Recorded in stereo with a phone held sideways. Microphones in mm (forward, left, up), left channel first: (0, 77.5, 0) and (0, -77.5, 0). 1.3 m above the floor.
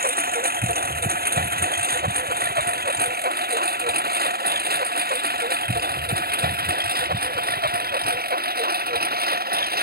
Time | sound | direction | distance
0.0 | a lawn mower | 80° right | ?